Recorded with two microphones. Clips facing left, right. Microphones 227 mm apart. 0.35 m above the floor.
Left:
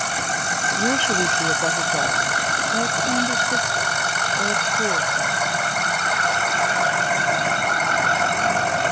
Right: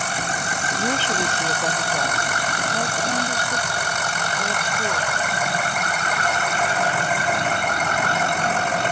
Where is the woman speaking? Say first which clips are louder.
Left 3 dB; 15° left (ahead or behind); by 5.6 s 25° left (ahead or behind).